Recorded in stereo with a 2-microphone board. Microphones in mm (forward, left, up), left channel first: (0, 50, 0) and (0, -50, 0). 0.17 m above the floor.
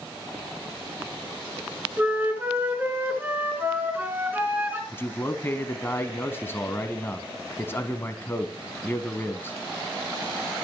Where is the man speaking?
25° left (ahead or behind), 1.1 m.